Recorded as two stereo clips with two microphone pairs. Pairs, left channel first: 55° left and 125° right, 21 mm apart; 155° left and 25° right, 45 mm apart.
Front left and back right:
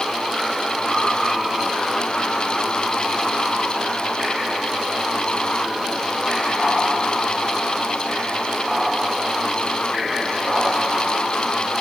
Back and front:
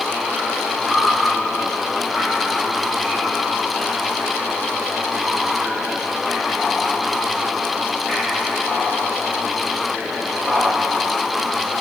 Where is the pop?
No pop in this recording.